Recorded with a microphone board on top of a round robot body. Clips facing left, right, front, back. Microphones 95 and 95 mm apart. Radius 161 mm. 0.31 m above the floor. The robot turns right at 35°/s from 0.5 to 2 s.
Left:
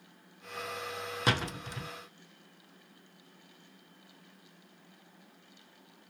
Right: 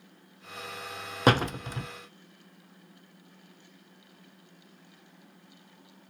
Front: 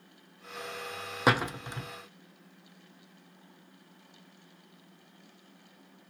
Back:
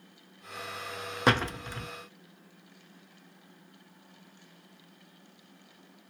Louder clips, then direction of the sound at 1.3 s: Right 9 dB, even; 85° right.